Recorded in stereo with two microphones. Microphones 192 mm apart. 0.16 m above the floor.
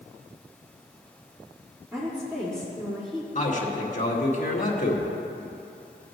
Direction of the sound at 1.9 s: 15° right (ahead or behind).